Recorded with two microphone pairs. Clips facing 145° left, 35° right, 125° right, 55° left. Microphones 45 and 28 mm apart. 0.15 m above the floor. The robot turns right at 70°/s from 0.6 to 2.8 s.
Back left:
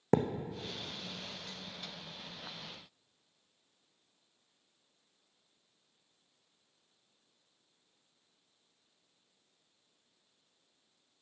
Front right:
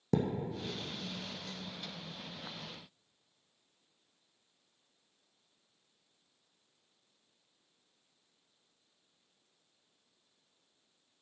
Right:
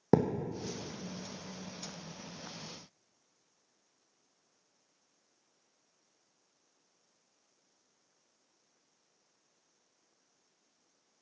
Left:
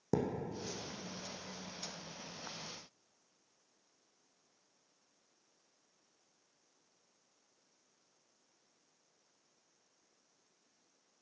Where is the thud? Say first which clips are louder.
Back left 3 dB, right 8 dB; 170° right, 0.8 m.